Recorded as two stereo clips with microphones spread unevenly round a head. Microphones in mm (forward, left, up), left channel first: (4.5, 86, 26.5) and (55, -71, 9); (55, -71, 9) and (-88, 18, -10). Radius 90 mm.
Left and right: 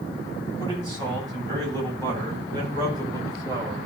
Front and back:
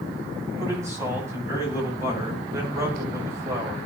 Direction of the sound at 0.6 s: 140° right.